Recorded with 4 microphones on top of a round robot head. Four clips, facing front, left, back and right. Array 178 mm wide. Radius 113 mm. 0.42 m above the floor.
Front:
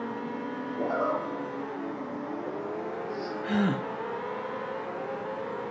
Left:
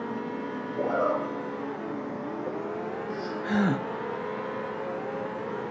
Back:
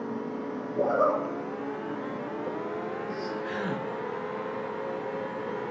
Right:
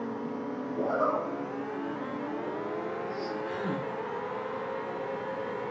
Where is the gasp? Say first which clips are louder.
Left 6 dB, front 4 dB; 60° left, 0.7 m.